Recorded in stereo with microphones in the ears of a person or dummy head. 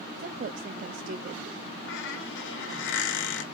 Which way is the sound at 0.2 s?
50° right (ahead or behind).